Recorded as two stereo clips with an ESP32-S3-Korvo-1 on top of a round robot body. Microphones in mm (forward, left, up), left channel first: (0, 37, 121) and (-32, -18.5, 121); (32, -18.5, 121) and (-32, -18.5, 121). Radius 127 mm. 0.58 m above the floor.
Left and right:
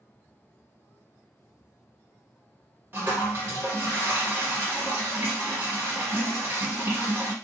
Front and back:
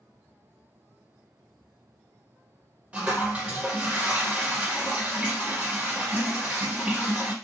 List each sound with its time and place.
2.9 s a toilet flushing: 125° right, 1.4 m